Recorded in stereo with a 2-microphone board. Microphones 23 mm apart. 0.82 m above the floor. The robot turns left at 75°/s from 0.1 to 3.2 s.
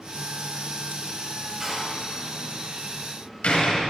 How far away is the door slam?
About 4 m.